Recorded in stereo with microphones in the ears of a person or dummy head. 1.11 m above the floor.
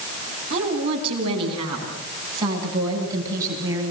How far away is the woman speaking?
About 8.5 m.